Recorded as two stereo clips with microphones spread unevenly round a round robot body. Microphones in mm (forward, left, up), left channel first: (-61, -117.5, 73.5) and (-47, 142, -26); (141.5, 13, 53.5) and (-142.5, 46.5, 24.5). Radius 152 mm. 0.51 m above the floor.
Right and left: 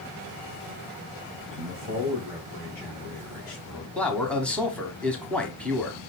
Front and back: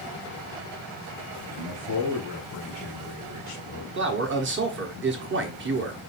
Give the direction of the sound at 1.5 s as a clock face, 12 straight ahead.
1 o'clock.